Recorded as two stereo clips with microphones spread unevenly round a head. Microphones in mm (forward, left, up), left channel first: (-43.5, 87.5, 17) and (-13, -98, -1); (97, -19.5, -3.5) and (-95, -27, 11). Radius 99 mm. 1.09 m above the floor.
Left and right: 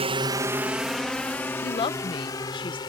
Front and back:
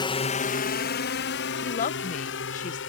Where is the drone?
45° right; by 2.9 s 30° left.